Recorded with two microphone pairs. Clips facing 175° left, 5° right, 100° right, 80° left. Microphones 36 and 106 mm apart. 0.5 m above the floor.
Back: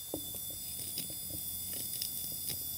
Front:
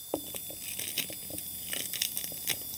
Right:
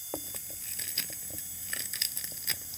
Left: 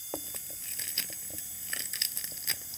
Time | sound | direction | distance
0.1 | chewing | 10° right | ?